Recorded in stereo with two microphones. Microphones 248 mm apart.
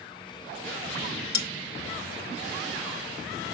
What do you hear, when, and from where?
1.3 s cutlery clinking: 40° left (ahead or behind), 0.9 m